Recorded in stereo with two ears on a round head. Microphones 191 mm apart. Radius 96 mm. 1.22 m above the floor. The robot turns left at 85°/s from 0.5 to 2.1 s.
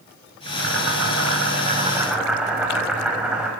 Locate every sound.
0.5 s boiling: 40° right, 6 m; by 3.5 s 175° right, 6 m